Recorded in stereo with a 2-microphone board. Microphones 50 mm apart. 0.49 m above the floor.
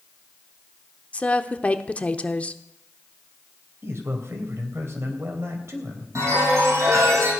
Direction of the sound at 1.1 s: 25° left (ahead or behind).